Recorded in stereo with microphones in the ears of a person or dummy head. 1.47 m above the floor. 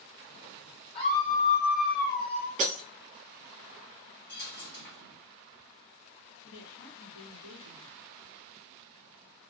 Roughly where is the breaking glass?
Right.